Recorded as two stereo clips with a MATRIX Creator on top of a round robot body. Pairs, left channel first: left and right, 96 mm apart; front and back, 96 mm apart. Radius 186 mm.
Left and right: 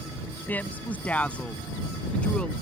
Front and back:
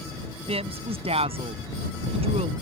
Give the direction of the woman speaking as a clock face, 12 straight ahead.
7 o'clock.